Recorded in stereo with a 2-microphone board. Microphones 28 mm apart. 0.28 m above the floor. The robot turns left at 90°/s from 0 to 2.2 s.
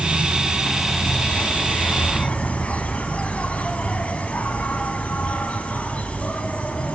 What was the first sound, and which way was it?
An insect, 105° right.